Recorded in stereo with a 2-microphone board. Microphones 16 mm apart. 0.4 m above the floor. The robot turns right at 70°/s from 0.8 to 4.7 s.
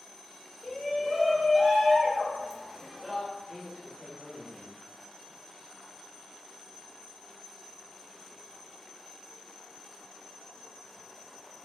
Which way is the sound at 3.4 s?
115° left.